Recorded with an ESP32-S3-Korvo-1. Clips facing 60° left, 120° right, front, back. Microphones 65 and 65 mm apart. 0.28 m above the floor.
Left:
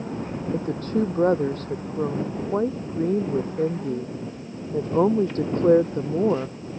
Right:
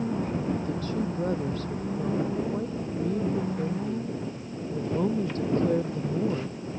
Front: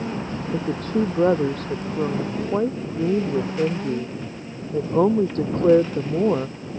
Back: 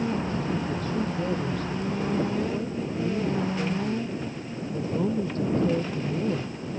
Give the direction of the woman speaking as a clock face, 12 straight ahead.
11 o'clock.